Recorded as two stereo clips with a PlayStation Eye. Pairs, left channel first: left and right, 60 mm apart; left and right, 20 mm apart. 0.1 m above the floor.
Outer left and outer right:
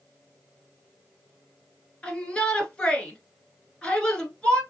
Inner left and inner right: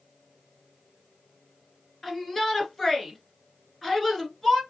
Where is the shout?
15° left (ahead or behind), 1.3 m.